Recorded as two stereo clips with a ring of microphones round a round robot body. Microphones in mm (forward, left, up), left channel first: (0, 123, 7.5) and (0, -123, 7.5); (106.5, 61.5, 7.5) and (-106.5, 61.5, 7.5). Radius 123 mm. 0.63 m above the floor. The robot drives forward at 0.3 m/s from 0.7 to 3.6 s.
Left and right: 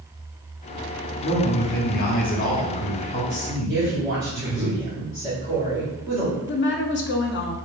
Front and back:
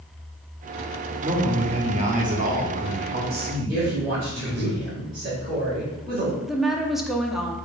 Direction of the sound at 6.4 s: 90° left.